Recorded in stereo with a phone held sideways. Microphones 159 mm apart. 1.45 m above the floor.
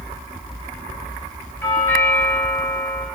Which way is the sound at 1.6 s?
15° left (ahead or behind).